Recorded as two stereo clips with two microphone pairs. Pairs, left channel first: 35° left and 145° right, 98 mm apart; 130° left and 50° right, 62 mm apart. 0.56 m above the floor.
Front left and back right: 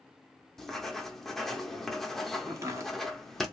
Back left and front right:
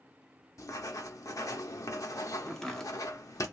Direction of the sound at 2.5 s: 160° right.